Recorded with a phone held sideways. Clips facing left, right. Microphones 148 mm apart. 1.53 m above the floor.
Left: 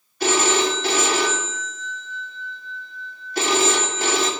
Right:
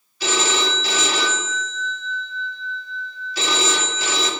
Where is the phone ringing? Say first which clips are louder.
Left 3 dB; 55° left (ahead or behind), 2.5 m.